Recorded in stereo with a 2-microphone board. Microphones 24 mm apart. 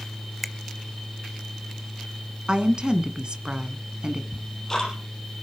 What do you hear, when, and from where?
0.4 s a finger snap: 5° left (ahead or behind), 0.8 m
2.5 s a woman speaking: 45° right (ahead or behind), 1.3 m
4.3 s ticking: 15° left (ahead or behind), 5 m